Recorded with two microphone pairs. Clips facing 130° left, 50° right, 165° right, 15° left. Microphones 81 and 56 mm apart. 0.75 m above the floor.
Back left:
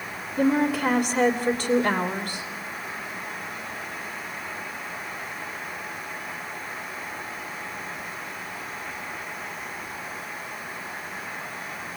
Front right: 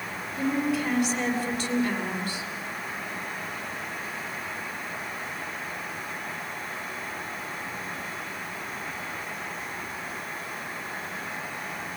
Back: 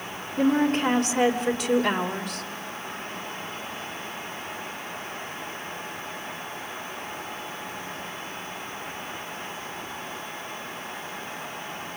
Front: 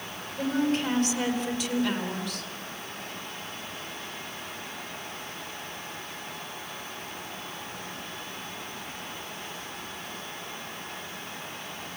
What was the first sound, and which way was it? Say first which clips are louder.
A woman speaking: back left 5 dB, back 5 dB; 170° left.